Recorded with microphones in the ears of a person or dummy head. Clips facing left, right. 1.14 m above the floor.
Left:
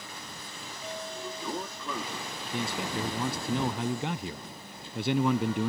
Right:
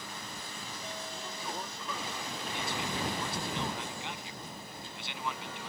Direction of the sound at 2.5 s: 40° left (ahead or behind).